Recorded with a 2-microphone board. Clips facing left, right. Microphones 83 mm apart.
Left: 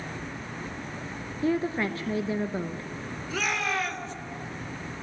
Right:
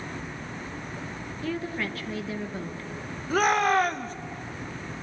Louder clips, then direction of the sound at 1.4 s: Left 5 dB; 25° left (ahead or behind).